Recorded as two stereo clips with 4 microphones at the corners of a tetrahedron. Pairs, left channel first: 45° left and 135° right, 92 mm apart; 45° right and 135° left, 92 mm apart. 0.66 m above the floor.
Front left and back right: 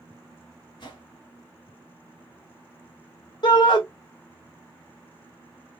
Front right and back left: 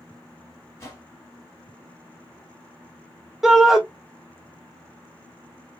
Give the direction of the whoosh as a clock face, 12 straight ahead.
12 o'clock.